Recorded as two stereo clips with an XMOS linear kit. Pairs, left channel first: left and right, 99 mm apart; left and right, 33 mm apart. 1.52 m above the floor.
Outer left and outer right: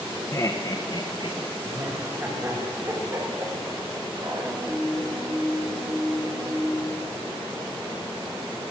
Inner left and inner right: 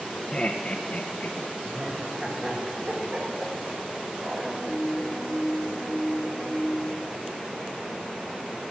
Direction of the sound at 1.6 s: 30° right (ahead or behind).